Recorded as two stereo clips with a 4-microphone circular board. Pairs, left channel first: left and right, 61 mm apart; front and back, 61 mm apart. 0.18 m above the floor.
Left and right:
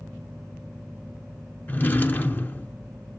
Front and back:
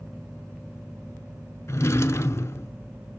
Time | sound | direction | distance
1.7 | a drawer | 35° left | 0.6 m